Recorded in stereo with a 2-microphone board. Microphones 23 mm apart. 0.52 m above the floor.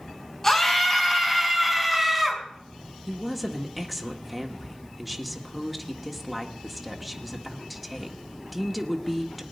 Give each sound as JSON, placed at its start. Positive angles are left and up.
{"t": 0.4, "sound": "a scream", "side_deg": 20, "distance_m": 4.0}
{"t": 3.1, "sound": "a woman speaking", "side_deg": 0, "distance_m": 1.3}